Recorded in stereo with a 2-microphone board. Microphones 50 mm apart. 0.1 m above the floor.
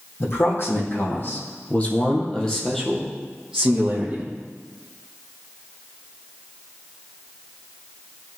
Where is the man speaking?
55° left (ahead or behind), 5 m; by 4.3 s 30° right (ahead or behind), 4 m.